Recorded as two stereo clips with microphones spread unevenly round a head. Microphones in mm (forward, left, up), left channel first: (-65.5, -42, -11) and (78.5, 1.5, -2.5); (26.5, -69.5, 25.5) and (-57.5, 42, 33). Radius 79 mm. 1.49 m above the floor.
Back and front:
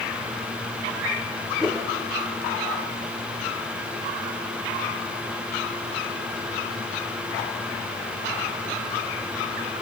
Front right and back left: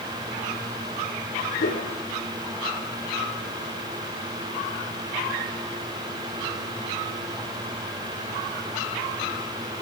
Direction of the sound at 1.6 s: 70° right.